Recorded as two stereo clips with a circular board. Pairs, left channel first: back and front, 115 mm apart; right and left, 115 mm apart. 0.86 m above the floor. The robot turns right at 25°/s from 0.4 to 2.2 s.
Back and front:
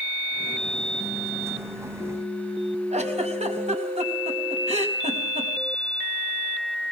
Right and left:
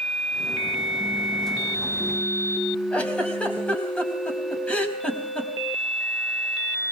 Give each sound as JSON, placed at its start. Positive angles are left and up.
{"t": 2.9, "sound": "a giggle", "azimuth_deg": -10, "distance_m": 4.0}